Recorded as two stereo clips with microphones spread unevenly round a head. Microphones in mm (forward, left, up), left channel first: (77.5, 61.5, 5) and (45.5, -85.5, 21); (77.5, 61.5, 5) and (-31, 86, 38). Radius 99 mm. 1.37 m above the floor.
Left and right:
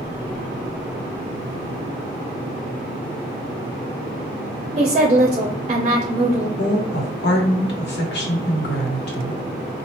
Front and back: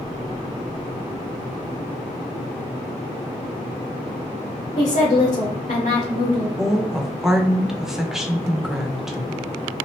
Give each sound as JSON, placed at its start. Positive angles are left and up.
{"t": 4.8, "sound": "a woman speaking", "azimuth_deg": -60, "distance_m": 0.7}
{"t": 6.6, "sound": "a woman speaking", "azimuth_deg": 80, "distance_m": 1.1}